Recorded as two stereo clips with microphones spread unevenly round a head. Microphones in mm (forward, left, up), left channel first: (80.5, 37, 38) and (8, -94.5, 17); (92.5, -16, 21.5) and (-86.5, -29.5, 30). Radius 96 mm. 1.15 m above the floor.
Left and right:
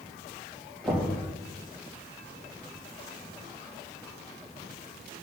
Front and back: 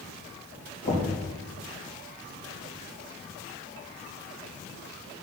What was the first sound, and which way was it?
Knocking, 30° right.